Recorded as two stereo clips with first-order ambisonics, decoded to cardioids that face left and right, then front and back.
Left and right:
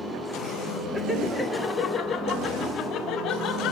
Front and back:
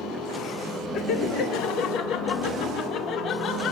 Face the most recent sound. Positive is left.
turn(degrees=45)